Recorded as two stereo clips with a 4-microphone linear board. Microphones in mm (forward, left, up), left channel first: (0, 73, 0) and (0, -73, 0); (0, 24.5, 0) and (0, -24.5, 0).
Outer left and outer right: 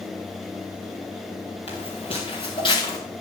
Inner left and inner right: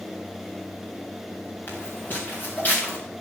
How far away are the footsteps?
About 3 m.